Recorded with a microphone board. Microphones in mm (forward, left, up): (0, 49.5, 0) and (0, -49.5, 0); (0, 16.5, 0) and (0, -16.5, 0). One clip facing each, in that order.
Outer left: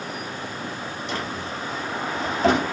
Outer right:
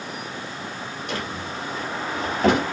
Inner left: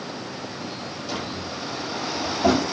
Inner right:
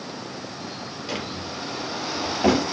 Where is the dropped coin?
No dropped coin in this recording.